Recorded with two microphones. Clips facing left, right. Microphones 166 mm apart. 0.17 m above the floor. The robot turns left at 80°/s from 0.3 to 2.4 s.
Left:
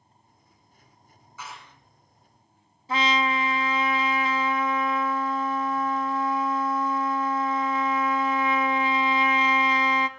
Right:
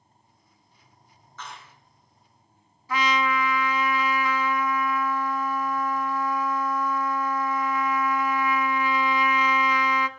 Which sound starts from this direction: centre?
A clap, at 1.4 s.